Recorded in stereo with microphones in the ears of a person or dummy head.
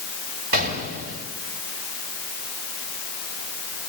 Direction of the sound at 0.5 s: 50° right (ahead or behind).